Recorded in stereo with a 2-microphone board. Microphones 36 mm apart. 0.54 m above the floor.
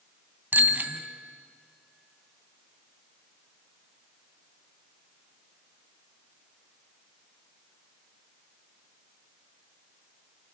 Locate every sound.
0.5 s a bicycle bell: 60° right (ahead or behind), 2.5 m